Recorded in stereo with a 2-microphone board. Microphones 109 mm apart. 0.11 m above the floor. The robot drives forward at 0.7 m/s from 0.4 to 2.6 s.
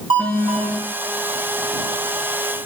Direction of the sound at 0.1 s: 55° right (ahead or behind).